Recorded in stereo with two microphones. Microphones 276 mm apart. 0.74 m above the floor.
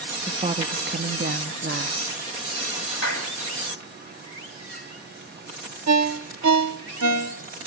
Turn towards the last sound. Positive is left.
turn(degrees=-80)